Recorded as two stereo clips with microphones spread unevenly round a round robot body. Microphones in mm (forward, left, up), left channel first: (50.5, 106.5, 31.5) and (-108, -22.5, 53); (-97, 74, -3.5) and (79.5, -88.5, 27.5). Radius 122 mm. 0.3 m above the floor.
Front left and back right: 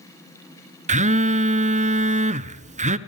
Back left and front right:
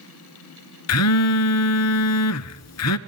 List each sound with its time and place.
0.9 s a phone buzzing: 165° left, 0.9 m